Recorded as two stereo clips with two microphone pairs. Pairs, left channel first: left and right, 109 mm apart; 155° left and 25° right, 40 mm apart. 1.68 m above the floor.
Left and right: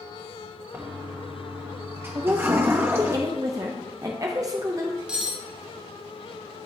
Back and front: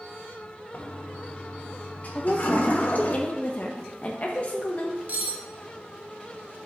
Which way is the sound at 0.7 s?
160° right.